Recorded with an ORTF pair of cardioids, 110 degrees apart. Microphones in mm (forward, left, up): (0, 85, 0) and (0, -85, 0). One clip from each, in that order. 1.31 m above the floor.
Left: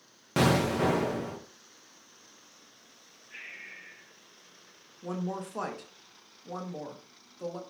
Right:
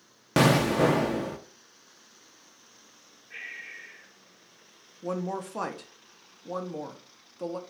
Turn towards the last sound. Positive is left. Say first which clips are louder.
# right 4 dB
turn(degrees=-20)